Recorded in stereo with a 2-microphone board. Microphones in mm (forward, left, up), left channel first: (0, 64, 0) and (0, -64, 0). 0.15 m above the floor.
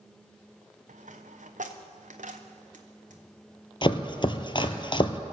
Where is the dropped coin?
80° right, 1.4 m.